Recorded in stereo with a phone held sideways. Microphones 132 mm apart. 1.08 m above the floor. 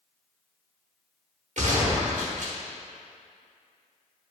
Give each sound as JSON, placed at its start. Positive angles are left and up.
{"t": 1.6, "sound": "a gunshot", "side_deg": -65, "distance_m": 1.2}